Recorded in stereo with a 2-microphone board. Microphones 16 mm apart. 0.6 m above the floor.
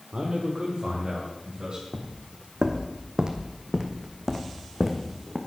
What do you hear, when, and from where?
0.1 s a man speaking: 35° right (ahead or behind), 1.7 m; by 1.8 s 30° right (ahead or behind), 4.5 m
1.9 s footsteps: 65° right (ahead or behind), 1.3 m; by 5.4 s 5° right (ahead or behind), 2 m